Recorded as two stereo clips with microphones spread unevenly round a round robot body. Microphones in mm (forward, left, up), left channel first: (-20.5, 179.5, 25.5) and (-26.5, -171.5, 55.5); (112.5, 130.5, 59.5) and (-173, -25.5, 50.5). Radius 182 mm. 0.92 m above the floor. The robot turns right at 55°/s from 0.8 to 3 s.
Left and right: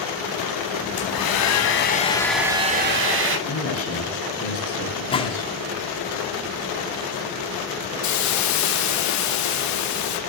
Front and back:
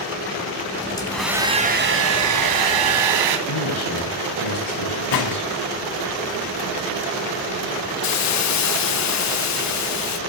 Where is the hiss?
60° left, 1.4 m.